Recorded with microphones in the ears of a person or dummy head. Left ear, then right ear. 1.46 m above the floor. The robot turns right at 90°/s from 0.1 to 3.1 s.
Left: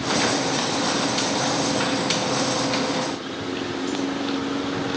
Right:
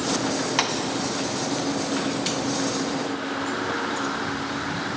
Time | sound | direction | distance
0.6 | tapping | 45° right (ahead or behind) | 0.8 m